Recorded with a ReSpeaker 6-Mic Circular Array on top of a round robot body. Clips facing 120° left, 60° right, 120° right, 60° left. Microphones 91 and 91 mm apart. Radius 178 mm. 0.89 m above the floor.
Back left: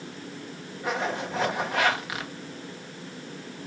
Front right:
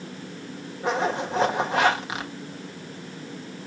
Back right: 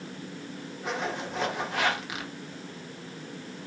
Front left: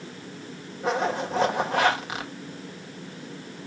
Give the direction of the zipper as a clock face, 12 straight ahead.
12 o'clock.